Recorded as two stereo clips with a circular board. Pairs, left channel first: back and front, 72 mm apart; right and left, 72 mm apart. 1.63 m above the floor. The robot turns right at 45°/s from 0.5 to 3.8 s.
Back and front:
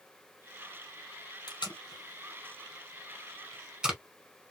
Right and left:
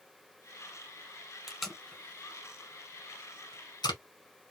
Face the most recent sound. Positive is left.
turn(degrees=-80)